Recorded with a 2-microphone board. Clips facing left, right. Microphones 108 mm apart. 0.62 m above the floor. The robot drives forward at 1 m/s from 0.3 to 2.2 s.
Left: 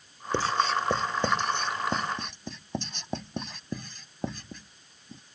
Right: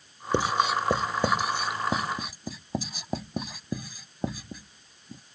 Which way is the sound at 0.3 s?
15° right (ahead or behind).